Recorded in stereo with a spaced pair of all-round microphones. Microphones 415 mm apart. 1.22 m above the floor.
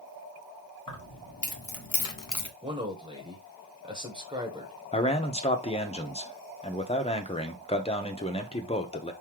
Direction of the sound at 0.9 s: 50° left (ahead or behind).